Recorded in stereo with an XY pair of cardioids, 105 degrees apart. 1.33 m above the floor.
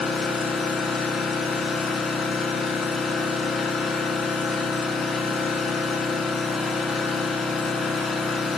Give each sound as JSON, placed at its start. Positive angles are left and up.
{"t": 0.0, "sound": "an engine running", "azimuth_deg": 50, "distance_m": 2.5}